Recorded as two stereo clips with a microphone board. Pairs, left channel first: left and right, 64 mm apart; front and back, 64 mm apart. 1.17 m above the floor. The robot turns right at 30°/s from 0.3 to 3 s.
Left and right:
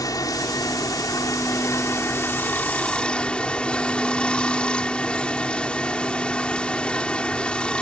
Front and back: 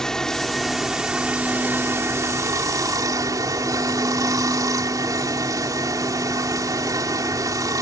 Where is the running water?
80° left; by 7.8 s 160° left.